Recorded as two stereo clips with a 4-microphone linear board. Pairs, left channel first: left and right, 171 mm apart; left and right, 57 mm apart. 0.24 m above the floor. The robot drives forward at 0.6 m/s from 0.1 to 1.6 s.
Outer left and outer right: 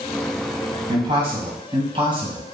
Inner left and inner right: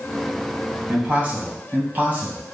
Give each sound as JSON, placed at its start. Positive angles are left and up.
{"t": 0.9, "sound": "a man speaking", "side_deg": -30, "distance_m": 1.4}